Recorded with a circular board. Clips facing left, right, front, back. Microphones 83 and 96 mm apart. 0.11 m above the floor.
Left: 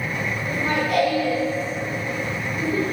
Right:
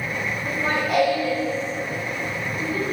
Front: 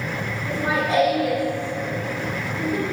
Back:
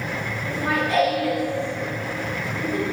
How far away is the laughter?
About 2 m.